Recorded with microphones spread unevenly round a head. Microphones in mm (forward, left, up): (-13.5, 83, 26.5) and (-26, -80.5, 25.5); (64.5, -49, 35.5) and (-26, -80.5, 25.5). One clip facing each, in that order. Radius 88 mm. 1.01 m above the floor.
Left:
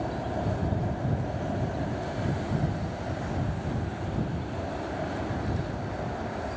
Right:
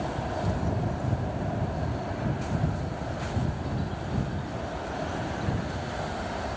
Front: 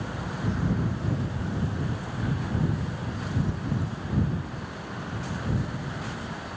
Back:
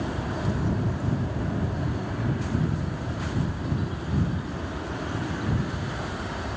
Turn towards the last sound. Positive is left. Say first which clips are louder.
# even, back 3 dB
turn(degrees=160)